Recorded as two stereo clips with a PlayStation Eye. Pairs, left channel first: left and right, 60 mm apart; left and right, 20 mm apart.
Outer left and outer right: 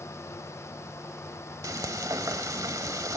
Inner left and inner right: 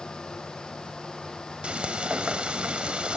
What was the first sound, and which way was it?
Frying, 70° right (ahead or behind).